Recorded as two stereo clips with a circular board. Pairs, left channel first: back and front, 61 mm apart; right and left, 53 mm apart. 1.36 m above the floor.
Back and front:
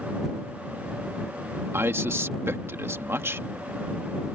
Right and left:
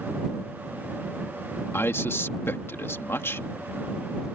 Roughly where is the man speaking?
Ahead right.